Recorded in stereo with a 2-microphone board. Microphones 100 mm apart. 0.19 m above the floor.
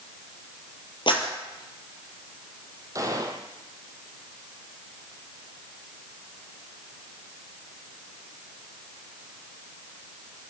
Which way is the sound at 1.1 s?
55° left (ahead or behind).